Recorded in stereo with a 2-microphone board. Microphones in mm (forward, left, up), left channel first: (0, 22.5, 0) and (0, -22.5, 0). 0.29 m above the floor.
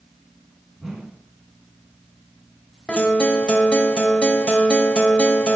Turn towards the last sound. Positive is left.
turn(degrees=25)  # may be behind; listen again after turning